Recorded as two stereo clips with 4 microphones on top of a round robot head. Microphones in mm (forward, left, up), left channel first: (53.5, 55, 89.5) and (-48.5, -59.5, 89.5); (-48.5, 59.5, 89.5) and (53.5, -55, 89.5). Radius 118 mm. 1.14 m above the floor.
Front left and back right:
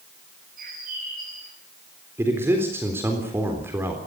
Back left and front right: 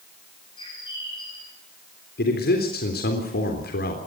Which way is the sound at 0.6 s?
165° right.